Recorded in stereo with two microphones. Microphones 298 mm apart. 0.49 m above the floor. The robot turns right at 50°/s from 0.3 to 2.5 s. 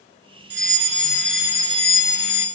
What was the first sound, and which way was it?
A fire alarm, 135° left.